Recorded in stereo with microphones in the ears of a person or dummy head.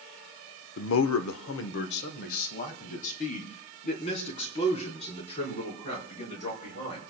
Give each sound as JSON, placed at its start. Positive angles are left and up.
{"t": 0.8, "sound": "a man speaking", "side_deg": 60, "distance_m": 0.7}